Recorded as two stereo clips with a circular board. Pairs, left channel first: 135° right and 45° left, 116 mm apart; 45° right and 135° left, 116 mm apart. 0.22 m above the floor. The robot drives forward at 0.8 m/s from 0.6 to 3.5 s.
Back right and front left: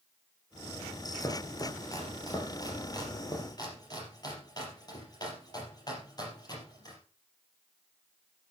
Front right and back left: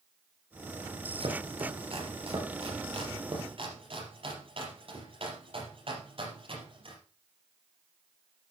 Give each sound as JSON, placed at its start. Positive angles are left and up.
{"t": 1.2, "sound": "chopping", "azimuth_deg": 165, "distance_m": 2.5}